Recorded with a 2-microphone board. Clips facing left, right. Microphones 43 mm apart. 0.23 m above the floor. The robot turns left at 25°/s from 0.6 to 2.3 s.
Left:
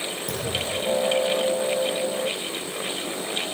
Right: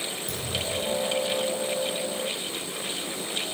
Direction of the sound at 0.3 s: 85° left.